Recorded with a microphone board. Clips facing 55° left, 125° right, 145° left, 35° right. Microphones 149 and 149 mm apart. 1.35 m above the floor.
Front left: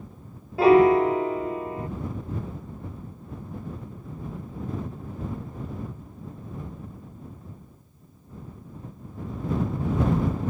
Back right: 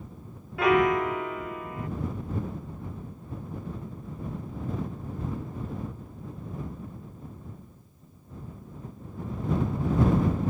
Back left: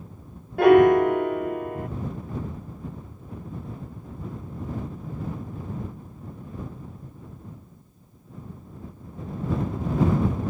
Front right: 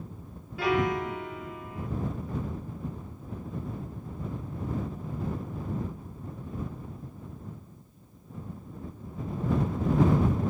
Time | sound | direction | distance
0.6 | a piano | 115° left | ?